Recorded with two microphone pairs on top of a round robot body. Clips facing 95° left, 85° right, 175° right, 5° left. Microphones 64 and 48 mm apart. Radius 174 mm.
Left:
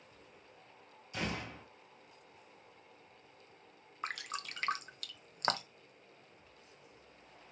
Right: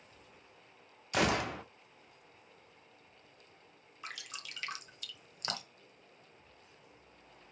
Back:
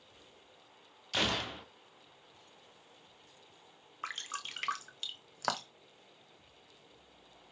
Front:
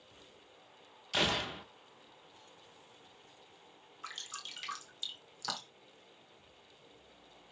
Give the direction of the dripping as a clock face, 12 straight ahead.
7 o'clock.